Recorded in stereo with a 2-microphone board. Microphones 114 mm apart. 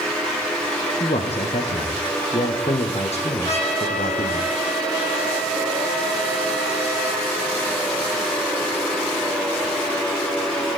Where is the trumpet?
75° left (ahead or behind), 10 m.